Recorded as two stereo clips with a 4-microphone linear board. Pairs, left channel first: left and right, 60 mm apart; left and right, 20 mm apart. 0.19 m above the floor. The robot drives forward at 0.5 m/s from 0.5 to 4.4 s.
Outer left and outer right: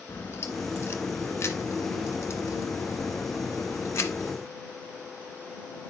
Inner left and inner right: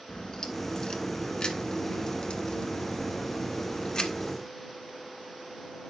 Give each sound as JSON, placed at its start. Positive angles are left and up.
{"t": 0.1, "sound": "a crack", "side_deg": 40, "distance_m": 1.8}